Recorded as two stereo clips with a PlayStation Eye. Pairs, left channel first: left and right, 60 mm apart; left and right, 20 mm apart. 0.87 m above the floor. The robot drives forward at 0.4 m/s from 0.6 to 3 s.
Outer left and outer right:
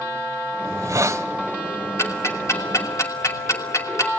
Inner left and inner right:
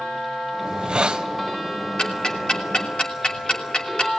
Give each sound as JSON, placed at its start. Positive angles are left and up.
{"t": 0.7, "sound": "a hiss", "side_deg": -60, "distance_m": 1.3}
{"t": 2.0, "sound": "ticking", "side_deg": 50, "distance_m": 3.0}